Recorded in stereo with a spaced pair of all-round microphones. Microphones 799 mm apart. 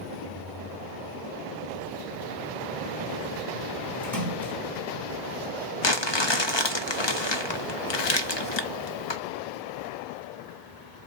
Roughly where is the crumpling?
Left.